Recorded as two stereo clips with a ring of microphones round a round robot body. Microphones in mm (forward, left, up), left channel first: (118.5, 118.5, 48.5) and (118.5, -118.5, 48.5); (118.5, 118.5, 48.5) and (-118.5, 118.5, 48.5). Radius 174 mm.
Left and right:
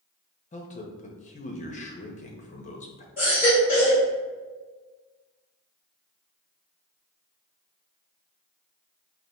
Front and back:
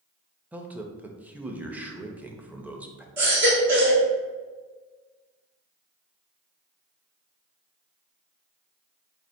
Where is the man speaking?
100° left, 0.6 m.